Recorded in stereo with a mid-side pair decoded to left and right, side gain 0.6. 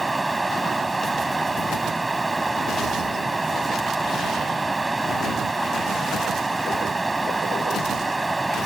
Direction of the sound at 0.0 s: 15° right.